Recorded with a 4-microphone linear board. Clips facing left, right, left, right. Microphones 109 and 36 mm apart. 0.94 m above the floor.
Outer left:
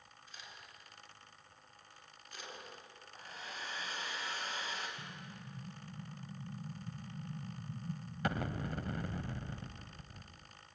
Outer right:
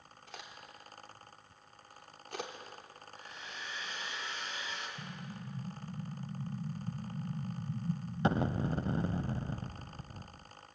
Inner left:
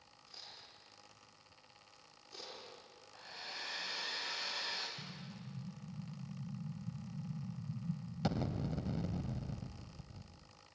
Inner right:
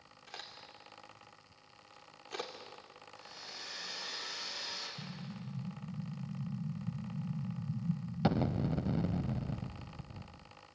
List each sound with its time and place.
0.3 s a crack: 75° right (ahead or behind), 3.5 m
3.1 s a hair dryer: 40° left (ahead or behind), 5 m
5.0 s an explosion: 25° right (ahead or behind), 0.8 m